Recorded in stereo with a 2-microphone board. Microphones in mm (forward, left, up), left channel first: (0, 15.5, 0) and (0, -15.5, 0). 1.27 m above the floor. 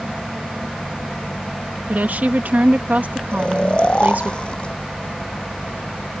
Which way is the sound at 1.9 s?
65° right (ahead or behind).